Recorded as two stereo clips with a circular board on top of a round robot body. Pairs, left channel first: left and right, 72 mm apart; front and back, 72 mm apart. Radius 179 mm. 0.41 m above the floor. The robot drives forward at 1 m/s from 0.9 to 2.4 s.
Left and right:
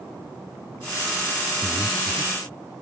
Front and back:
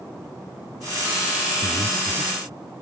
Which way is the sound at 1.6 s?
160° left.